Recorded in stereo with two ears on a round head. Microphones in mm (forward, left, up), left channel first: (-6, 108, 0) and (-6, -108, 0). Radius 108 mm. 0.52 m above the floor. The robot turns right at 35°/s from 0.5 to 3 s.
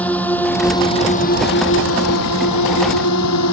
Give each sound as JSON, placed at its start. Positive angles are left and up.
{"t": 0.0, "sound": "a drone", "side_deg": 5}